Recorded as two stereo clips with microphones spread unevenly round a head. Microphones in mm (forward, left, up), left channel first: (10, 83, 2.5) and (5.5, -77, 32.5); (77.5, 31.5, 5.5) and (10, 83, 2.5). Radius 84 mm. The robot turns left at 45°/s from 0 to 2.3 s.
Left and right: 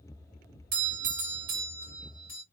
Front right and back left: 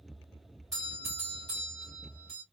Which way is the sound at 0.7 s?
125° right.